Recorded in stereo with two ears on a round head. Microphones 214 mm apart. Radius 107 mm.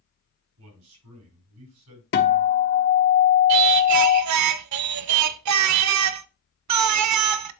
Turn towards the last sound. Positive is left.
turn(degrees=-75)  # may be behind; listen again after turning